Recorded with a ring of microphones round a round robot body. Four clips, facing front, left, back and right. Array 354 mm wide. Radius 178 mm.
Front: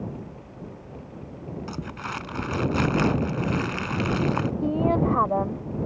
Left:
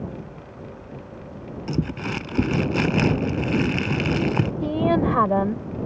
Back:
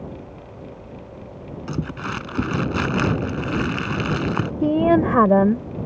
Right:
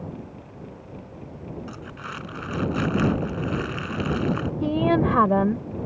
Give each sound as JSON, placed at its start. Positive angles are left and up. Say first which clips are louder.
{"t": 1.7, "sound": "crumpling", "louder": "left 10 dB, back 9 dB", "azimuth_deg": 120}
{"t": 4.6, "sound": "a woman speaking", "louder": "right 1 dB, back 7 dB", "azimuth_deg": -170}